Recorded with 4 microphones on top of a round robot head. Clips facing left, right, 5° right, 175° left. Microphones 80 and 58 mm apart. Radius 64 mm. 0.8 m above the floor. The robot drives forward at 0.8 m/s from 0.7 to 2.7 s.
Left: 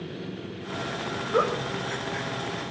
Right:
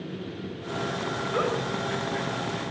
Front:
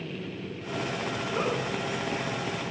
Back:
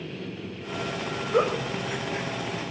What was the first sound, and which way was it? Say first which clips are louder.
A giggle: left 3 dB, back 7 dB; 155° left.